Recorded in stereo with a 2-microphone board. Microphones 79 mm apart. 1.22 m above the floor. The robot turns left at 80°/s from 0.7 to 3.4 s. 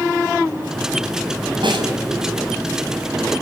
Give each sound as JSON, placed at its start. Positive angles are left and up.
{"t": 1.6, "sound": "a snare drum", "side_deg": -85, "distance_m": 5.5}